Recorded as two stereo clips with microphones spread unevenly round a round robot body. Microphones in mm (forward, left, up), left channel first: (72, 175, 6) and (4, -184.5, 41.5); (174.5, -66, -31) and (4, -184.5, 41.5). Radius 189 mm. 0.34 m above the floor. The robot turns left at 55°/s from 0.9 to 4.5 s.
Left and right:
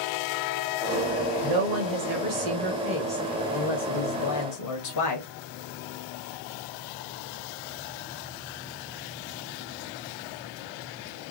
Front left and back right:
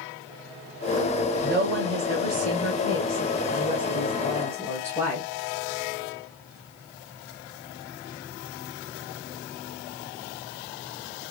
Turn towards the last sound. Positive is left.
turn(degrees=95)